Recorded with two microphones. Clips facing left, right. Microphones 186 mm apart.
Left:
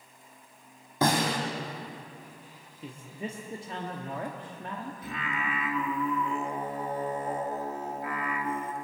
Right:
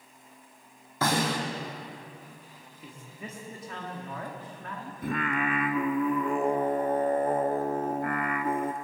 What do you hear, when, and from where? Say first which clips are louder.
1.0 s a snare drum: left 1 dB; 20° left (ahead or behind), 4 m
2.8 s a man speaking: left 6 dB; 25° left (ahead or behind), 1.1 m
5.0 s singing: right 10 dB; 55° right (ahead or behind), 0.5 m